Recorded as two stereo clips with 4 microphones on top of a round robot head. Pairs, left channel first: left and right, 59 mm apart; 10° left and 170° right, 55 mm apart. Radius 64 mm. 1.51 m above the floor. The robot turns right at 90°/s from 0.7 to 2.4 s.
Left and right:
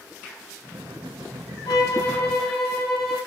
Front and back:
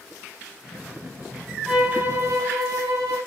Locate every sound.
1.7 s a violin: 105° left, 5 m; by 3.2 s 175° left, 5 m